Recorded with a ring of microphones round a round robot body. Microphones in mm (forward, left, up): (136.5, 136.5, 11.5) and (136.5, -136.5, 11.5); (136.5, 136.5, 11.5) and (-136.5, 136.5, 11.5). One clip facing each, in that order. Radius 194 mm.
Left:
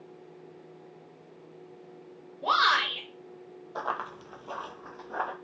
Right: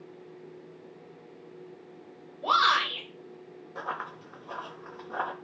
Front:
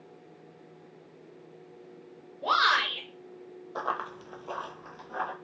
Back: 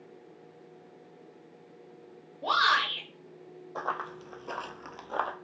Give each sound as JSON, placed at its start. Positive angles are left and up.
{"t": 2.4, "sound": "a shout", "azimuth_deg": 90, "distance_m": 1.2}
{"t": 3.8, "sound": "running footsteps", "azimuth_deg": 70, "distance_m": 0.9}